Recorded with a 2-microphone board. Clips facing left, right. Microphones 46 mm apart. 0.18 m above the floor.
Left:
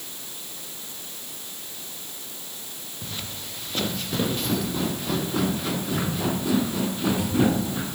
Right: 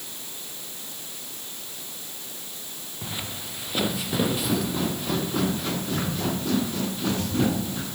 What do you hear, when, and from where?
3.0 s footsteps: 15° right (ahead or behind); by 8.0 s 15° left (ahead or behind)